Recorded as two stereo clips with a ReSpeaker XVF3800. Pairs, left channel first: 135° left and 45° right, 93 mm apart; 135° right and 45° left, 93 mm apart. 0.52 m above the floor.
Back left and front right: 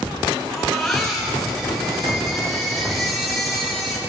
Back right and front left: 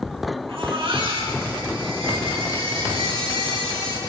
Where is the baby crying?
50° left, 6.5 m.